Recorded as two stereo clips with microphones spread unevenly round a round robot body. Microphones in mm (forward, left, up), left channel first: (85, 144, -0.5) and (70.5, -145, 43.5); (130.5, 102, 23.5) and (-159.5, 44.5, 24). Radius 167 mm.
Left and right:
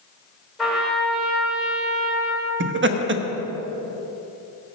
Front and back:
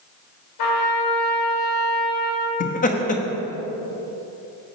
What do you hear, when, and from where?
0.6 s a trumpet: 5° right, 2 m
2.6 s laughter: 45° right, 1.0 m